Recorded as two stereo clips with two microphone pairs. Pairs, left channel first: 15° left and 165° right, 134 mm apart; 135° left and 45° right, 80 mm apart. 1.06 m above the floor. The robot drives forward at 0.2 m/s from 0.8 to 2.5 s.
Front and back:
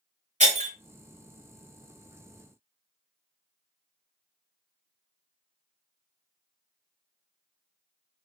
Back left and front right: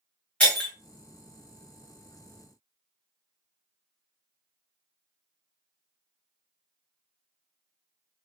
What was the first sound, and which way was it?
Breaking glass, 155° right.